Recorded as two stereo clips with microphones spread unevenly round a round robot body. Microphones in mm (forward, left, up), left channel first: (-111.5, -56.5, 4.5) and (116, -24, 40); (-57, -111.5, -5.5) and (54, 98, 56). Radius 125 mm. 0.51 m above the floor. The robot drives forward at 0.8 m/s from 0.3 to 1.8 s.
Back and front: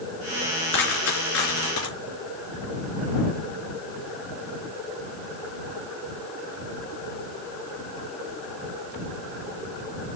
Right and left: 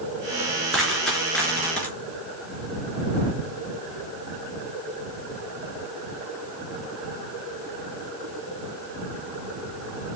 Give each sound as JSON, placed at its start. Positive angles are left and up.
{"t": 0.7, "sound": "a dropped coin", "azimuth_deg": 150, "distance_m": 3.5}